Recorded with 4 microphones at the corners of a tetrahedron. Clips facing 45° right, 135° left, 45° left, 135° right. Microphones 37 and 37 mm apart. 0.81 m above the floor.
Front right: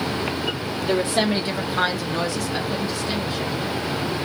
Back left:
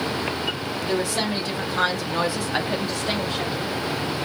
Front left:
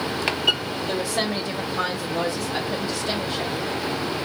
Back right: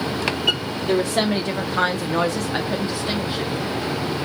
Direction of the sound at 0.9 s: 90° right.